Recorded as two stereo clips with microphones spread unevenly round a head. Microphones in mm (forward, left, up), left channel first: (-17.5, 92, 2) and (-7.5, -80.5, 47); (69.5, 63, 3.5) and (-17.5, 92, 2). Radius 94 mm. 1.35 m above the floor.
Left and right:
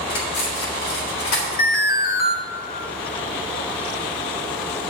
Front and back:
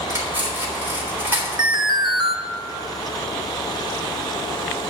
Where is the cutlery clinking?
90° left, 3.5 m.